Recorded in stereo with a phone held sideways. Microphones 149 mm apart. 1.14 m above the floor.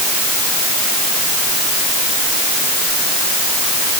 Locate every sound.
Only background noise.